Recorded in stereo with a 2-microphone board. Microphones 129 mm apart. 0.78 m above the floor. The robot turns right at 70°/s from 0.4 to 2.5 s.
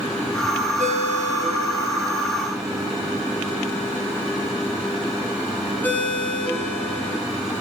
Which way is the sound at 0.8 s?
75° right (ahead or behind).